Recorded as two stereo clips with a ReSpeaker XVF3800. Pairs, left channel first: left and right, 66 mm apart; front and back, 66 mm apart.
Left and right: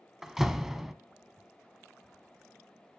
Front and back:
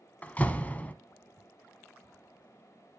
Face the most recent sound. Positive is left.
turn(degrees=-15)